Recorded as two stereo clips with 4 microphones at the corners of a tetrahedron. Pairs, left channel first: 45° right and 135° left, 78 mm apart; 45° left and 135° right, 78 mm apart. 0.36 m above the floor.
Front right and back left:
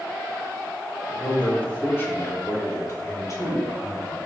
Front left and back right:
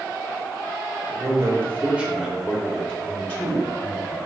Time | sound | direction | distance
1.1 | a man speaking | 125° right | 1.0 m